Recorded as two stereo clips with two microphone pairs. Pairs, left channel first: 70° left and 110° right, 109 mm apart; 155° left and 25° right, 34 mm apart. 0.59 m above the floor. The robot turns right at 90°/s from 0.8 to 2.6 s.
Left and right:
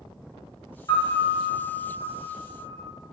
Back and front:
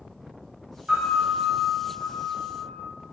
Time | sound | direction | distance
0.9 | a piano | 25° left | 1.3 m